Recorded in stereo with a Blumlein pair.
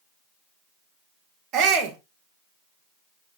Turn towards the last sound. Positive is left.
turn(degrees=-30)